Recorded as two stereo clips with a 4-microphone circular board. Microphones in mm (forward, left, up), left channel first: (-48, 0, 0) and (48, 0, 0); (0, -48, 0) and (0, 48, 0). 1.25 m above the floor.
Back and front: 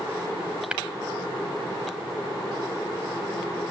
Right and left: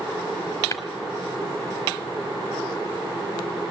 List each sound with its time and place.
0.7 s tapping: 70° right, 1.2 m